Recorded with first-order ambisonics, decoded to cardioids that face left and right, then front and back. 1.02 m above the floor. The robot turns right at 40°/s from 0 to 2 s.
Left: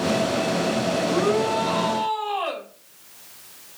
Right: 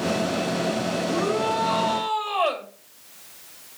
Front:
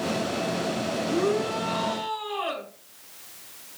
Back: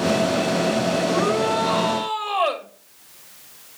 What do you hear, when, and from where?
1.1 s a shout: 165° left, 4 m; by 2.7 s 160° right, 4 m